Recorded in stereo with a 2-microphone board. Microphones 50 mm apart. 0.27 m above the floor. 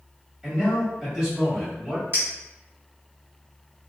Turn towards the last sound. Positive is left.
turn(degrees=-50)  # may be behind; listen again after turning